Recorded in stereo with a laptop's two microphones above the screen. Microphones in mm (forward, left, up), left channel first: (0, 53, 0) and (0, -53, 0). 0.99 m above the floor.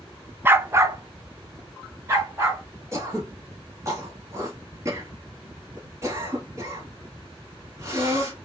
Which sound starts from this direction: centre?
A dog barking, at 0.5 s.